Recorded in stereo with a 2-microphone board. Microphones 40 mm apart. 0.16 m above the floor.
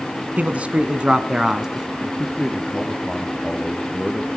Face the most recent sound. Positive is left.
turn(degrees=0)  # may be behind; listen again after turning